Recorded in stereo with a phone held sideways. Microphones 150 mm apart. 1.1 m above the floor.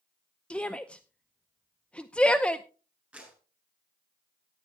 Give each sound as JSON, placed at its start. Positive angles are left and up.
{"t": 0.5, "sound": "a shout", "side_deg": 10, "distance_m": 0.6}
{"t": 3.1, "sound": "a clap", "side_deg": -10, "distance_m": 7.5}